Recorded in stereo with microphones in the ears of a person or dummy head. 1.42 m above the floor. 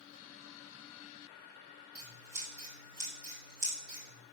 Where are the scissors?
80° right, 5 m.